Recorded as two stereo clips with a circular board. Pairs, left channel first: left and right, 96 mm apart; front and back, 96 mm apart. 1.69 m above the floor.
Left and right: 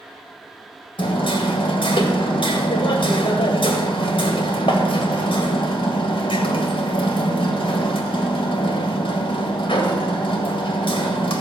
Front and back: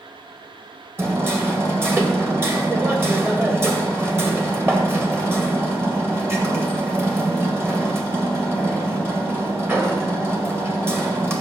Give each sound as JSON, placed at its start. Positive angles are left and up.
{"t": 1.0, "sound": "hammering", "azimuth_deg": 115, "distance_m": 1.8}